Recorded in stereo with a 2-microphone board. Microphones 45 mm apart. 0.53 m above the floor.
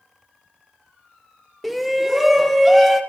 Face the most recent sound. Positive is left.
turn(degrees=0)  # may be behind; listen again after turning